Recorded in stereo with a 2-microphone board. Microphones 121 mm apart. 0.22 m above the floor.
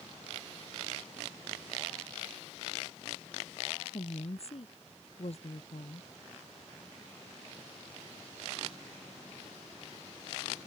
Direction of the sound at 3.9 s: 60° left (ahead or behind).